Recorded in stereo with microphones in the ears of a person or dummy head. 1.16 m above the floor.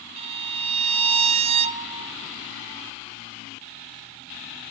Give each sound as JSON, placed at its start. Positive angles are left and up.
{"t": 0.2, "sound": "a violin", "side_deg": -30, "distance_m": 0.5}